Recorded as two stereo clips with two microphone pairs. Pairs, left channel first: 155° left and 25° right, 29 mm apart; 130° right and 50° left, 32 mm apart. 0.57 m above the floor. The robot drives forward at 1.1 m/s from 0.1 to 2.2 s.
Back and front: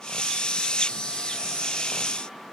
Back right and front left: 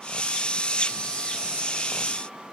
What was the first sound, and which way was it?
Only background noise.